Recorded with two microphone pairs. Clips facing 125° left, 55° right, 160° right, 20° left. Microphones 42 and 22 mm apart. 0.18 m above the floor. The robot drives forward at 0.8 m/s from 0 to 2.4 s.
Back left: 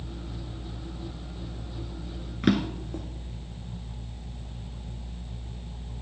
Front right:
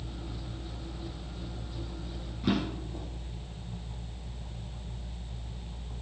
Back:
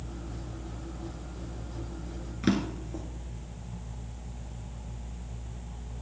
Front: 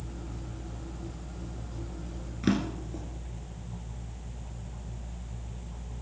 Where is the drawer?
115° left, 1.7 m.